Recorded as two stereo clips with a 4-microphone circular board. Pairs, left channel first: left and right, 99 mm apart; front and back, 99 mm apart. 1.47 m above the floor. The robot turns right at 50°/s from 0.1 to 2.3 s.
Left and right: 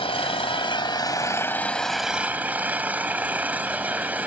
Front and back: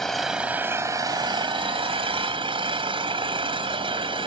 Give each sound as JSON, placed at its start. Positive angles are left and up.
{"t": 0.0, "sound": "an engine running", "azimuth_deg": 85}